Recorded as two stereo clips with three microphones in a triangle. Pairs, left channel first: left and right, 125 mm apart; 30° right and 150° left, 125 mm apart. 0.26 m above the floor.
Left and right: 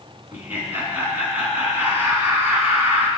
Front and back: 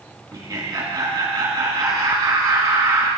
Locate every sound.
0.3 s laughter: 160° right, 3 m